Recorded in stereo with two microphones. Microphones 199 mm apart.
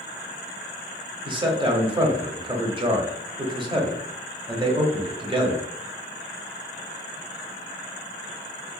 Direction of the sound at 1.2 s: 25° right (ahead or behind).